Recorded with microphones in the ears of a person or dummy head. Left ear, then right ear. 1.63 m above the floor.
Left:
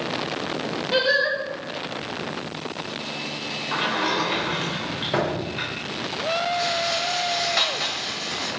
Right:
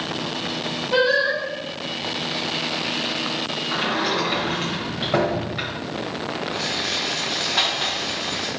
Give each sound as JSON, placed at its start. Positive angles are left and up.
{"t": 0.9, "sound": "singing", "side_deg": 60, "distance_m": 2.5}
{"t": 3.7, "sound": "a sliding door", "side_deg": 20, "distance_m": 1.7}
{"t": 6.5, "sound": "a rattle", "side_deg": 55, "distance_m": 2.5}